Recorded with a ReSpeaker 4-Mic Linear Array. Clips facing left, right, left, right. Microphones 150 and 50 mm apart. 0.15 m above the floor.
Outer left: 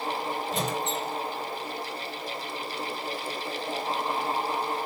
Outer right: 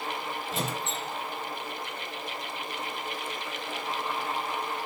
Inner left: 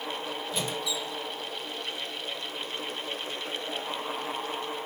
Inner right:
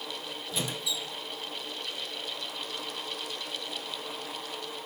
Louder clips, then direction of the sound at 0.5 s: Outer left 2 dB, inner left 1 dB; centre (ahead or behind).